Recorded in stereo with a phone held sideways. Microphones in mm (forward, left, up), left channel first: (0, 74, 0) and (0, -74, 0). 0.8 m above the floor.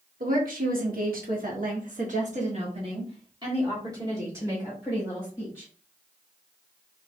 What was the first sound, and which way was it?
A woman speaking, 65° right (ahead or behind).